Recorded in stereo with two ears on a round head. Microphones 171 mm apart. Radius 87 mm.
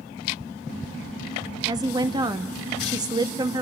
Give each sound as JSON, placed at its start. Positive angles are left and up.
{"t": 1.7, "sound": "a woman speaking", "side_deg": -20, "distance_m": 1.0}